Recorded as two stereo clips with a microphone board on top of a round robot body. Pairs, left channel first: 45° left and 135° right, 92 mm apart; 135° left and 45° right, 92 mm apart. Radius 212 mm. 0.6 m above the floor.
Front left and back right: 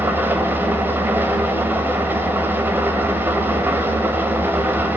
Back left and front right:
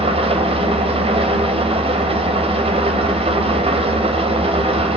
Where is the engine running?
65° right, 2 m.